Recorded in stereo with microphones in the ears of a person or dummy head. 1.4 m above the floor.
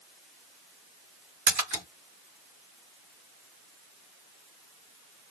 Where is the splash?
45° right (ahead or behind), 1.5 m.